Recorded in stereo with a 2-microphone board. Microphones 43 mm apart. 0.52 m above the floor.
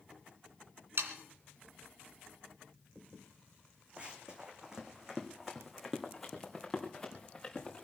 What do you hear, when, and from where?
1.0 s sawing: 65° right (ahead or behind), 2.5 m
4.0 s running footsteps: 25° right (ahead or behind), 2.5 m; by 7.8 s 15° left (ahead or behind), 3.5 m